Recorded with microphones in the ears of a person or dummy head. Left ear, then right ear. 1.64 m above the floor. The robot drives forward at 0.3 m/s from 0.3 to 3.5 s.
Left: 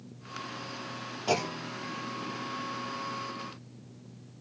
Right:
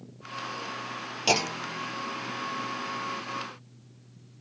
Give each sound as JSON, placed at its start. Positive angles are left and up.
{"t": 1.3, "sound": "a clunk", "side_deg": -75, "distance_m": 0.7}